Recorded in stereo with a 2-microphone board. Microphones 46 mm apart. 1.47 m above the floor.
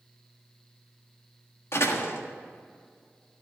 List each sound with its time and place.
1.7 s a door slam: 65° left (ahead or behind), 1.5 m